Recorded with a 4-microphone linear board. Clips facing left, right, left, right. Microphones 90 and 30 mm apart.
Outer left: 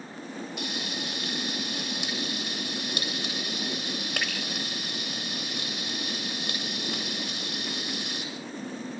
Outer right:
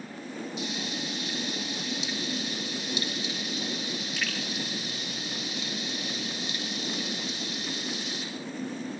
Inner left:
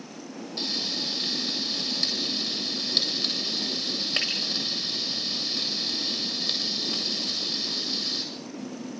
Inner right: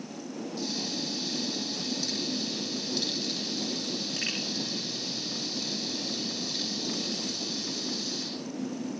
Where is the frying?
60° left (ahead or behind), 8 m.